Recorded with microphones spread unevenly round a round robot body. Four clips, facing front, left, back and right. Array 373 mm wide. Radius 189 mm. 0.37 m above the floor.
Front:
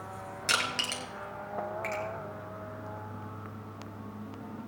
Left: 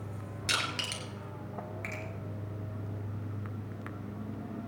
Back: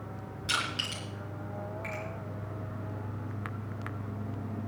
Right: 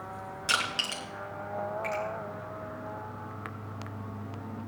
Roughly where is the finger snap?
Ahead left.